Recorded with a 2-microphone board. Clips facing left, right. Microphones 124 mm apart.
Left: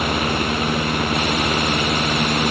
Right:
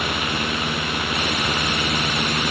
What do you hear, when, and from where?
Only background noise.